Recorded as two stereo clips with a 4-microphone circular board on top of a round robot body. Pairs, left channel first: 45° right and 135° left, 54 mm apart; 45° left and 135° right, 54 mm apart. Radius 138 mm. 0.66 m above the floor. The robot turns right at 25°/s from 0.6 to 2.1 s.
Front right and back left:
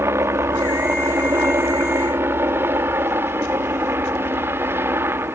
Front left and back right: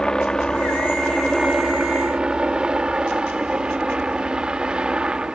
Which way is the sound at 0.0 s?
120° left.